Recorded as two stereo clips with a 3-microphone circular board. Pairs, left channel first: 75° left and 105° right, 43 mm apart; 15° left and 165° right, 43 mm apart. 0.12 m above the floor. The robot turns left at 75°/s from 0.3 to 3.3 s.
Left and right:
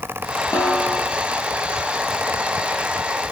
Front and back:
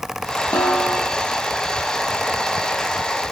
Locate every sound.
0.5 s a snare drum: 40° left, 4.5 m; by 1.1 s straight ahead, 4.5 m